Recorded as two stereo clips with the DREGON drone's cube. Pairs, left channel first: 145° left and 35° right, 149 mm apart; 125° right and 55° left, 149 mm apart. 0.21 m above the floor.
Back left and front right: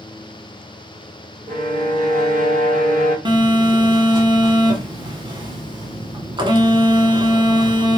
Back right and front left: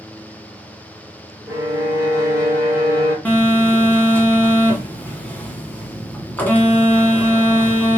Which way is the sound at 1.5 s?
10° right.